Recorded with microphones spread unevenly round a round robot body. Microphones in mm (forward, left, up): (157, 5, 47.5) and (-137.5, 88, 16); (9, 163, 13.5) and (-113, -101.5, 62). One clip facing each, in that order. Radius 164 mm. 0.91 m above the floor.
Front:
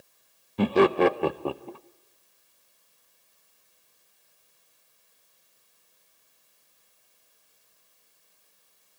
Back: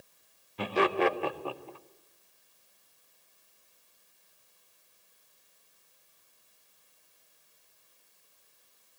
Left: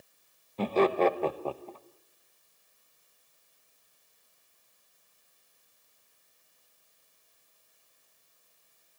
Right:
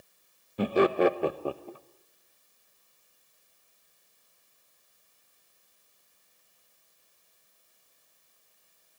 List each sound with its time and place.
0.6 s laughter: 30° right, 0.9 m